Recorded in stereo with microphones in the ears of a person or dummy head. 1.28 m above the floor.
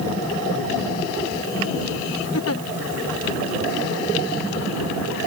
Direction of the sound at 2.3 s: 70° left (ahead or behind).